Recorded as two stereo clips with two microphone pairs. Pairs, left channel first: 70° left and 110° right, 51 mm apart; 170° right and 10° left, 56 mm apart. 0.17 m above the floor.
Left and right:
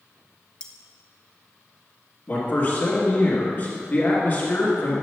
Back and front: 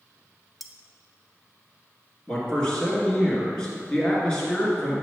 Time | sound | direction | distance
0.6 | cutlery clinking | 95° left | 0.6 m
2.3 | a man speaking | 115° left | 2 m